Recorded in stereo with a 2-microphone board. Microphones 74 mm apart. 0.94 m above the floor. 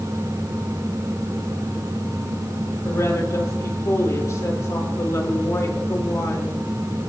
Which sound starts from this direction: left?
A woman speaking, at 2.9 s.